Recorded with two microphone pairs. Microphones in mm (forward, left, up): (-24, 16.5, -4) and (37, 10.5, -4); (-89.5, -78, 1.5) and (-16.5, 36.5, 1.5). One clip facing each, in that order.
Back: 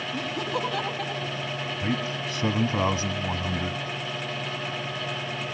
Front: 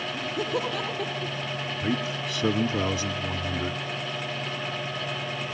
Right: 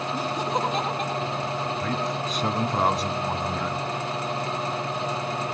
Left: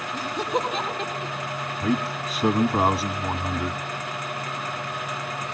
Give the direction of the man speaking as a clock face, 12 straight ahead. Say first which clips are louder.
Front 1 dB, left 2 dB; 7 o'clock.